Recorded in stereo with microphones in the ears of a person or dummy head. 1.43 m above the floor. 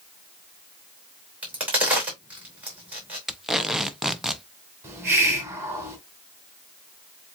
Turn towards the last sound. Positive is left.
turn(degrees=-10)  # may be behind; listen again after turning